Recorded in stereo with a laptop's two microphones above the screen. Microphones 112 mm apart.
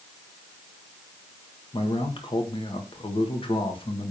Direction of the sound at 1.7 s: 50° left (ahead or behind).